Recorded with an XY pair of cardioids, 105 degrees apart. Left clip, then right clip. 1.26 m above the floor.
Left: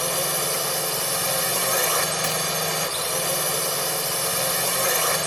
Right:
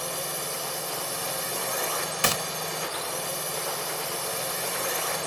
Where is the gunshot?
40° right.